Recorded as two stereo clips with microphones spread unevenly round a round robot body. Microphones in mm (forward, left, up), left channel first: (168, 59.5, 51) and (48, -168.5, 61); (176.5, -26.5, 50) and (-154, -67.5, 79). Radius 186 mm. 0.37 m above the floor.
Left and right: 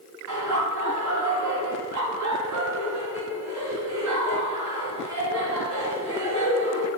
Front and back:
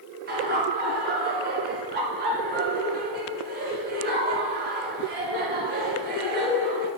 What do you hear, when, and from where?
0.3 s laughter: 110° right, 5 m